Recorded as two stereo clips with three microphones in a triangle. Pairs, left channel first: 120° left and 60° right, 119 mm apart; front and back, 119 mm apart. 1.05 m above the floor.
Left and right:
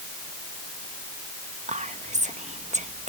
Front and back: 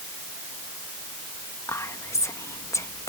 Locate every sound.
1.7 s whispering: 65° right